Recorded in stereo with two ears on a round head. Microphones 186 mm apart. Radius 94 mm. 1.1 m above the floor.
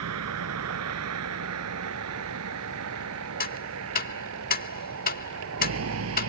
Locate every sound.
0.0 s a vehicle: 85° right; by 6.3 s 75° right (ahead or behind)
3.4 s ticking: 45° left (ahead or behind)